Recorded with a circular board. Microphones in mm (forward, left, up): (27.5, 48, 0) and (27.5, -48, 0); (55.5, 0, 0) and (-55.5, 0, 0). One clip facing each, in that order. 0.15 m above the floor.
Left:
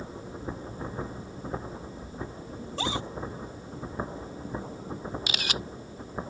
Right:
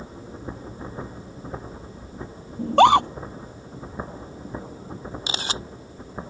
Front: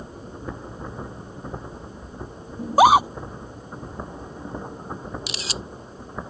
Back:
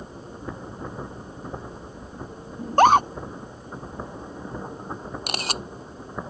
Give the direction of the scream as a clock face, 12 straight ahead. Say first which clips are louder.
Right 19 dB, front 1 dB; 3 o'clock.